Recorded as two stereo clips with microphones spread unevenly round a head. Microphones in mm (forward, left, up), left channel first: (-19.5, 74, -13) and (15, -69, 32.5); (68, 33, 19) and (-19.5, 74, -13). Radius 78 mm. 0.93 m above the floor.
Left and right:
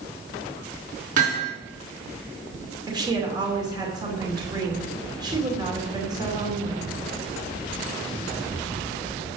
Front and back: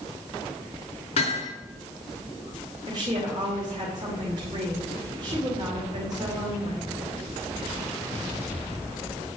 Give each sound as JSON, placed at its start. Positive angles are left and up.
{"t": 1.2, "sound": "hammering", "azimuth_deg": -35, "distance_m": 5.0}
{"t": 2.9, "sound": "a woman speaking", "azimuth_deg": -145, "distance_m": 2.5}